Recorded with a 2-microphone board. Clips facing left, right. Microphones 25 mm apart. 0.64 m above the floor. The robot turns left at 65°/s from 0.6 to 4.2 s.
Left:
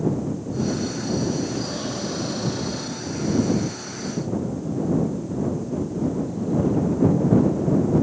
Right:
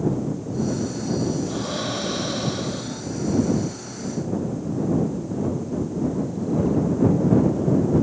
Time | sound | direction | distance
1.5 | breathing | 70° right | ?